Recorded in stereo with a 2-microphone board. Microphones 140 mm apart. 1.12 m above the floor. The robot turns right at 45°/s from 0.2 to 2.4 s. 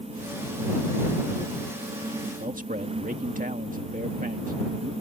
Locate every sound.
2.4 s a man speaking: 75° right (ahead or behind)